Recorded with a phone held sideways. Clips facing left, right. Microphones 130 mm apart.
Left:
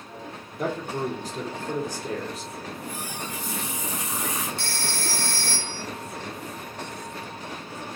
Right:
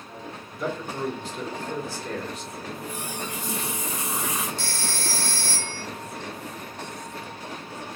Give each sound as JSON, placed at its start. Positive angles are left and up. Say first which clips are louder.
{"t": 0.6, "sound": "a man speaking", "louder": "left 1 dB", "side_deg": 60, "distance_m": 0.9}
{"t": 2.6, "sound": "a running tap", "louder": "right 1 dB", "side_deg": -80, "distance_m": 1.4}
{"t": 4.6, "sound": "a phone ringing", "louder": "even", "side_deg": 60, "distance_m": 0.9}